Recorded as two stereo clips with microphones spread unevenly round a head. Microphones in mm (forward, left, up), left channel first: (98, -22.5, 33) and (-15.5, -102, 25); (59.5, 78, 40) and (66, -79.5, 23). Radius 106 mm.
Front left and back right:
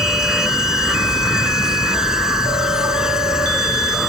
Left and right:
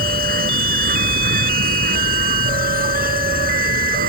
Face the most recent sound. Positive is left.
turn(degrees=-60)